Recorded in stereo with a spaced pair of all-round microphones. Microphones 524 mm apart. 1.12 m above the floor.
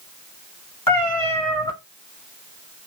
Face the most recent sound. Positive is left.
turn(degrees=40)  # may be behind; listen again after turning